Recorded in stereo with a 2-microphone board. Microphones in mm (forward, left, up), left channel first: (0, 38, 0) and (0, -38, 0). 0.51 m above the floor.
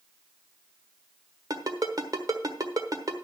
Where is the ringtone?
55° right (ahead or behind), 1.2 m.